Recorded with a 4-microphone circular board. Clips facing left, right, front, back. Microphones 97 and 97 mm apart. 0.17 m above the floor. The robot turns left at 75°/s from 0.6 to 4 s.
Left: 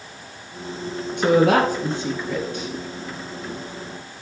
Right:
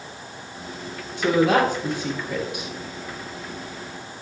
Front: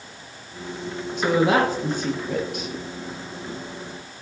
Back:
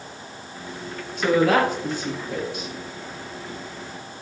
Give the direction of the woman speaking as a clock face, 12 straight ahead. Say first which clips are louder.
Left 2 dB, back 1 dB; 9 o'clock.